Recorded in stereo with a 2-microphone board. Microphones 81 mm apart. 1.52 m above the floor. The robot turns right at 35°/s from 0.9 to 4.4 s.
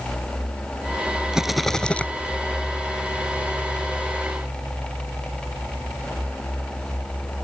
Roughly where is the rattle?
Centre.